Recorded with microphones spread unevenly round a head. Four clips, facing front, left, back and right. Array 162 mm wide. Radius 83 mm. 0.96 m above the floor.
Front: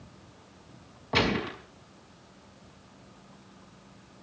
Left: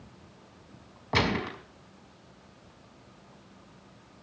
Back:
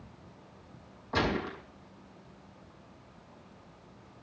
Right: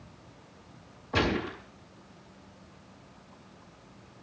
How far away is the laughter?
I don't hear laughter.